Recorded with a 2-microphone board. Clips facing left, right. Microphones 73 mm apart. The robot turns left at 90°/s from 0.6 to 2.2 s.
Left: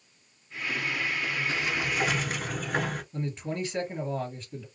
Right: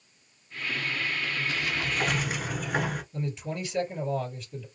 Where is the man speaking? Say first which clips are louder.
Left 1 dB; 40° left (ahead or behind), 2 m.